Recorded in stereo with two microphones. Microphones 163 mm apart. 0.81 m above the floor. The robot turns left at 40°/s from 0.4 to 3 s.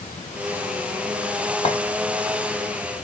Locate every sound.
1.6 s a clink: 45° left (ahead or behind), 0.7 m; by 1.8 s 40° left (ahead or behind), 0.7 m